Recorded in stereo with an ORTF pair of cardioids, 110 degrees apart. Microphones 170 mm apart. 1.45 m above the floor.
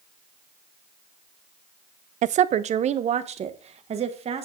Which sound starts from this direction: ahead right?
A woman speaking, at 2.2 s.